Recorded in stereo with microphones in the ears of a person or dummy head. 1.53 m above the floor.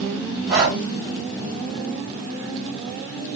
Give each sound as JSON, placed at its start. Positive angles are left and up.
{"t": 0.5, "sound": "breathing", "side_deg": -10, "distance_m": 1.1}